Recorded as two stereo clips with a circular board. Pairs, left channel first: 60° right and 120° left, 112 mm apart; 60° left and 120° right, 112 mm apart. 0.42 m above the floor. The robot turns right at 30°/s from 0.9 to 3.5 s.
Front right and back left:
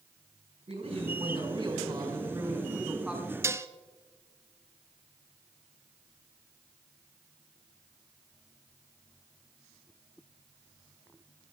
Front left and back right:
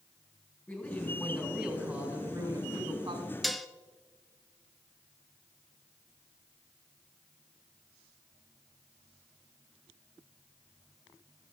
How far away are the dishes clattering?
About 0.5 m.